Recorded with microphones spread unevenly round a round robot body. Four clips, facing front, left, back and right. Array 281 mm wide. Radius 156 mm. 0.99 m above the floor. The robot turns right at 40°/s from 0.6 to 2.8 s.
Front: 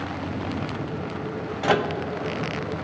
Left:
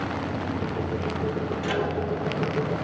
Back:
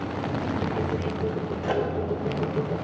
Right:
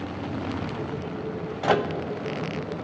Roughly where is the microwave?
Ahead right.